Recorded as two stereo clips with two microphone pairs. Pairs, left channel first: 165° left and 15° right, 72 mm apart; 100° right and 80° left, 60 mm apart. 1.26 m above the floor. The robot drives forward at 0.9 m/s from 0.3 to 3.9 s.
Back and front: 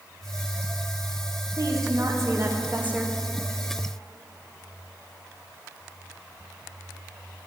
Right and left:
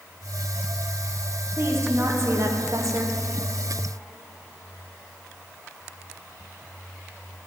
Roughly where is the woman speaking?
Ahead left.